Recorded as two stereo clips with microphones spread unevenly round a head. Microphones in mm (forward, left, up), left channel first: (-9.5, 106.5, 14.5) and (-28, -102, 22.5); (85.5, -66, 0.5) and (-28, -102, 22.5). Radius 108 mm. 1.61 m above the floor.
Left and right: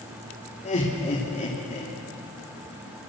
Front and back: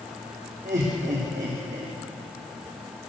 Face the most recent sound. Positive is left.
turn(degrees=140)